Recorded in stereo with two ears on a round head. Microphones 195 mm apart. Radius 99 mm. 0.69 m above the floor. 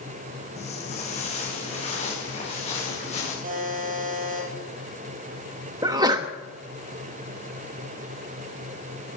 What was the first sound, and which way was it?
Footsteps, 30° left (ahead or behind).